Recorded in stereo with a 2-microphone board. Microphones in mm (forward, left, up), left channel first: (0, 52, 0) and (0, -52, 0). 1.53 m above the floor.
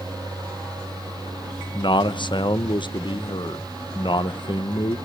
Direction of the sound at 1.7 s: 45° left (ahead or behind).